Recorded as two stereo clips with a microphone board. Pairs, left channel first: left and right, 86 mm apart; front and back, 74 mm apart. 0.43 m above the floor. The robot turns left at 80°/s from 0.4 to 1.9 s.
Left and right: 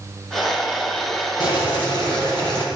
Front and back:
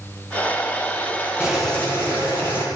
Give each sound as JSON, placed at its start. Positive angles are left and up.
{"t": 1.4, "sound": "boiling", "azimuth_deg": 100, "distance_m": 9.0}